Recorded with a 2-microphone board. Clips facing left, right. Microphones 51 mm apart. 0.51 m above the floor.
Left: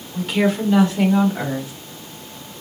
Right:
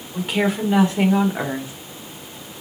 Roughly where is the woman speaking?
Centre.